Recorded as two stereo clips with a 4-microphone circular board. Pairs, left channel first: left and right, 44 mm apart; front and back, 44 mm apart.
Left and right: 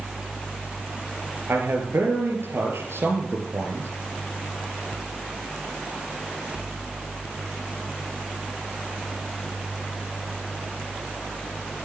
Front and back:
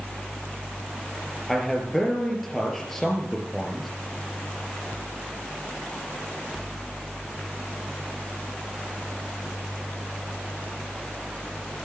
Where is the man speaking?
85° right, 4 m.